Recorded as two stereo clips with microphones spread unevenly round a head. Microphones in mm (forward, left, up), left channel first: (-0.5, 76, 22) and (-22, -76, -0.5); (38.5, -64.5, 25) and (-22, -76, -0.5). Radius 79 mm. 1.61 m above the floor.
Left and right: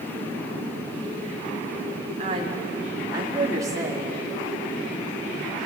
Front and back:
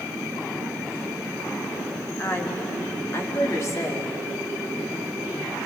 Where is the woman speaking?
40° right, 3.5 m; by 4.1 s 25° right, 5.5 m.